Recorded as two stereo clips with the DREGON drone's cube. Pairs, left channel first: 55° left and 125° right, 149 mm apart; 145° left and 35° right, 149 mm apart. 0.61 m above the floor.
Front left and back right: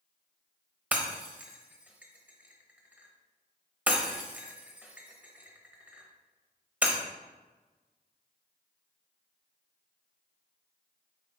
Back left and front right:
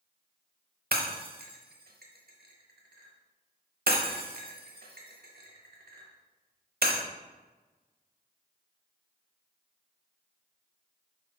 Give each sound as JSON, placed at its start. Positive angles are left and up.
{"t": 0.9, "sound": "breaking glass", "azimuth_deg": -45, "distance_m": 0.7}